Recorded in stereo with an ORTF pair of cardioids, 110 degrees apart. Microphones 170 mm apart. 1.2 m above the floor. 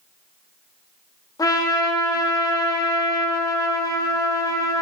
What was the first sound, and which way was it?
A trumpet, 20° left.